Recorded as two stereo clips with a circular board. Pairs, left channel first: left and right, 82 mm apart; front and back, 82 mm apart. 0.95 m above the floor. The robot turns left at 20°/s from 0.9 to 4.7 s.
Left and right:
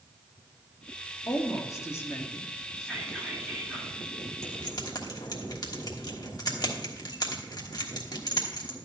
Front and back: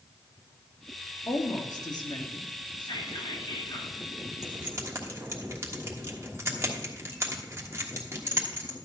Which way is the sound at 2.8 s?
5° left.